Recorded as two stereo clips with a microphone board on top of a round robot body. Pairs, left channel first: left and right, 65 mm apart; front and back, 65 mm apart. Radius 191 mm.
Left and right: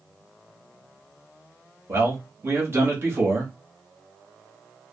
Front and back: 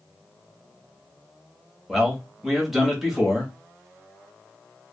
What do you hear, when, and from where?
1.9 s a man speaking: 95° right, 1.3 m